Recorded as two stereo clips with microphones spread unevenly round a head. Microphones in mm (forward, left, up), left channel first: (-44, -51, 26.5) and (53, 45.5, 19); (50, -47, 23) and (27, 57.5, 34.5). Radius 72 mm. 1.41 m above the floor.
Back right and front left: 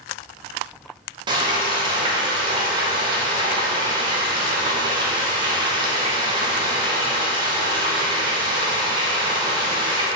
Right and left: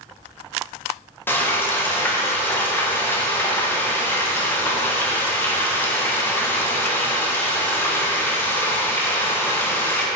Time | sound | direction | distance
1.3 | frying | 10° right | 0.7 m